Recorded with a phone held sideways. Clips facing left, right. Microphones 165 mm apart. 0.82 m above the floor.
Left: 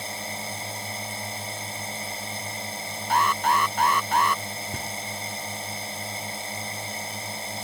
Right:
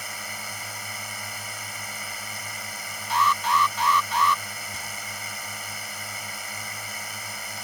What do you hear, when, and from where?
0.0 s a drone: 30° left (ahead or behind)
3.1 s an alarm: 50° left (ahead or behind)
4.7 s knocking: 55° left (ahead or behind)